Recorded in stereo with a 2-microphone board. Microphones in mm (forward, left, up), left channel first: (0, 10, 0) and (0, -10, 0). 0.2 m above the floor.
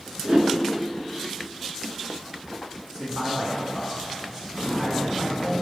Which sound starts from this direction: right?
A whoosh, at 0.2 s.